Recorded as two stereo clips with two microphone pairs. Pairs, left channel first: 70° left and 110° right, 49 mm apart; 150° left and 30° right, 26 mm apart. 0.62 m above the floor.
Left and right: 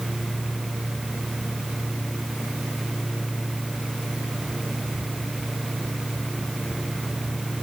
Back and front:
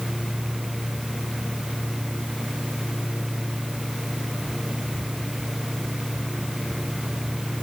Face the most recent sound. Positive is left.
No sound to turn to.